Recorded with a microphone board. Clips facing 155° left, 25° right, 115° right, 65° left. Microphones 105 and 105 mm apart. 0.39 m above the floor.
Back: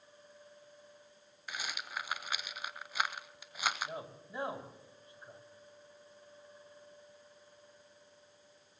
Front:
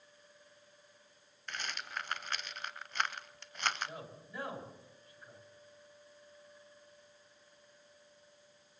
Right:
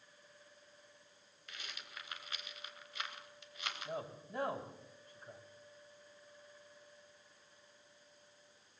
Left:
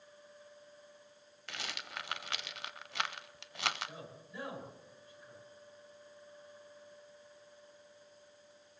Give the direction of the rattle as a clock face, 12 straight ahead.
9 o'clock.